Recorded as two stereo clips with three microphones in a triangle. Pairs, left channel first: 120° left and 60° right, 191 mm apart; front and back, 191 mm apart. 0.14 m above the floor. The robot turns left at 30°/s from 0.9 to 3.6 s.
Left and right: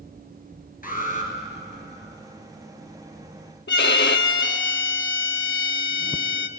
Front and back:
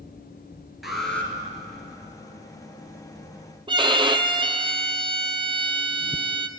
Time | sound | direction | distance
0.8 | an alarm | 90° left | 1.8 m
3.7 | a violin | 120° left | 0.5 m